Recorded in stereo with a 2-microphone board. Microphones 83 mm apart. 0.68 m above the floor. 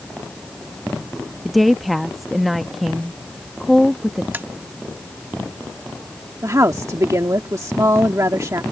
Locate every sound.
1.4 s a woman speaking: centre (ahead or behind)
4.3 s tapping: 25° right (ahead or behind)
6.4 s a woman speaking: 40° right (ahead or behind)